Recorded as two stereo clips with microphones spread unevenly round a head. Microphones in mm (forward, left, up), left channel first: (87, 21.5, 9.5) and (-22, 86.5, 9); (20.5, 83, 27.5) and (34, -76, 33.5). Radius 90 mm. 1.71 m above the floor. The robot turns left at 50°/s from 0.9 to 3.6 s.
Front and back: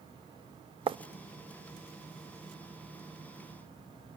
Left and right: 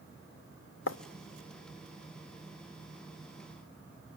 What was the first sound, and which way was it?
Writing, 100° left.